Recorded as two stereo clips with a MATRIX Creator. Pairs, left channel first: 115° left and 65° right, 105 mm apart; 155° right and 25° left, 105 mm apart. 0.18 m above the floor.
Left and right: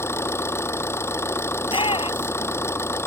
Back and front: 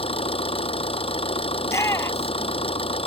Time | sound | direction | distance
0.0 | an engine running | straight behind | ?
1.6 | a shout | 140° left | ?